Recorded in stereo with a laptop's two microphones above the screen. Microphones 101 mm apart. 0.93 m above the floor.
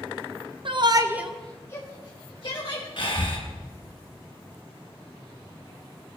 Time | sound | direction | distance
0.7 | a shout | 55° right (ahead or behind) | 0.9 m
3.0 | breathing | 55° left (ahead or behind) | 2 m